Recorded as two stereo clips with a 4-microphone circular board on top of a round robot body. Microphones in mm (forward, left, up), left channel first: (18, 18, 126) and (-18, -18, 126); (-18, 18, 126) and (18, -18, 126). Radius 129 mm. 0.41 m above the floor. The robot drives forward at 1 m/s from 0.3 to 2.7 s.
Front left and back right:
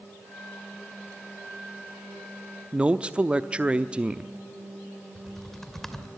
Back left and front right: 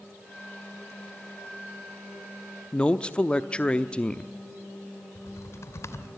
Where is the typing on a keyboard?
125° left, 2.5 m.